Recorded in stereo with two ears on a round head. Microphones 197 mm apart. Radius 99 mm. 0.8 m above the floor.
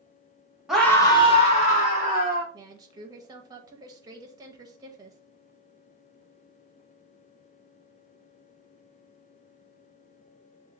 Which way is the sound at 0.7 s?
5° right (ahead or behind).